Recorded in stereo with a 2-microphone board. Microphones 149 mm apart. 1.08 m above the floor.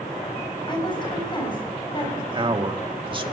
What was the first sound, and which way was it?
A woman speaking, 35° left (ahead or behind).